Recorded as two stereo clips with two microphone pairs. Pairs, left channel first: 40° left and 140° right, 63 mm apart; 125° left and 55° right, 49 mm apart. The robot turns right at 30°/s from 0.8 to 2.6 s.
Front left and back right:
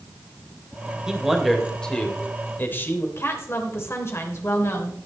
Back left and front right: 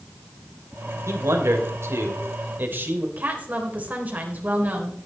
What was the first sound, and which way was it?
A man speaking, 60° right.